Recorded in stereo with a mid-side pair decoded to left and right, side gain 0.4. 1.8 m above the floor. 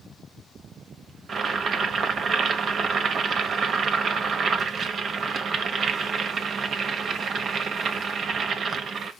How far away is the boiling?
About 1.1 m.